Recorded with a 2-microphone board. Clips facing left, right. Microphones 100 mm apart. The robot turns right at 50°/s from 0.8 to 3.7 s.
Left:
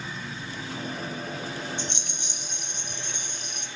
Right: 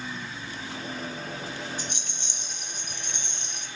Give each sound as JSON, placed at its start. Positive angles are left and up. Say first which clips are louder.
{"t": 1.8, "sound": "a rattle", "louder": "left 2 dB", "azimuth_deg": 140, "distance_m": 1.7}